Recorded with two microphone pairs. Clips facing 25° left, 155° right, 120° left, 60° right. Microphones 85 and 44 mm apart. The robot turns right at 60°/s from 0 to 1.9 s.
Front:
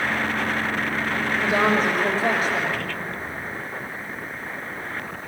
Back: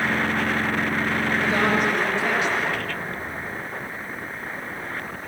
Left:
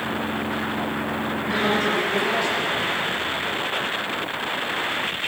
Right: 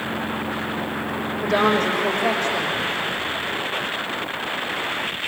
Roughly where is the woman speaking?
Ahead right.